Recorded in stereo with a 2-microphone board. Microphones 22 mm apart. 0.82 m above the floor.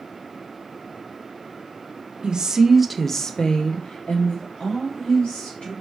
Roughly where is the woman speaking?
Right.